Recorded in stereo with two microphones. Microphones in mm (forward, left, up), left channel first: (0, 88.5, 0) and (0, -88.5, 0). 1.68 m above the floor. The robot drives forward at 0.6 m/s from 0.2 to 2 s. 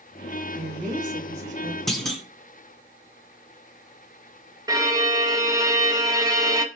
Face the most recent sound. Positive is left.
turn(degrees=-20)  # may be behind; listen again after turning